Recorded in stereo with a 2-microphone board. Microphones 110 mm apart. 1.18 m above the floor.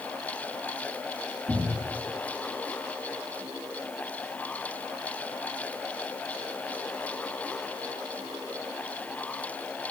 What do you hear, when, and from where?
1.5 s a cupboard door: 25° right (ahead or behind), 2.5 m